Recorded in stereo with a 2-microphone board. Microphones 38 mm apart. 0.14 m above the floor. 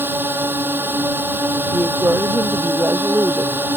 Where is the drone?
65° right (ahead or behind).